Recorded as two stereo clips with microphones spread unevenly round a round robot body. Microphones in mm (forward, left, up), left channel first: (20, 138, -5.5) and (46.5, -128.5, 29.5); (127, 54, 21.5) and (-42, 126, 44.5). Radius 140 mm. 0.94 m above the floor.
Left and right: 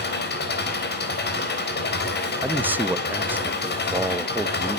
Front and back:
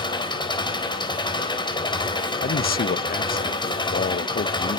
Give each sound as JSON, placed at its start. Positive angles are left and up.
{"t": 0.0, "sound": "an engine running", "azimuth_deg": 45, "distance_m": 4.0}
{"t": 2.4, "sound": "a man speaking", "azimuth_deg": 5, "distance_m": 1.0}